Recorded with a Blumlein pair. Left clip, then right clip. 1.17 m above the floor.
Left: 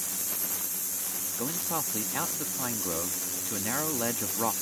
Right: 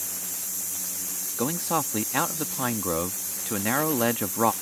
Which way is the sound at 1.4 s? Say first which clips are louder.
Right 7 dB; 20° right.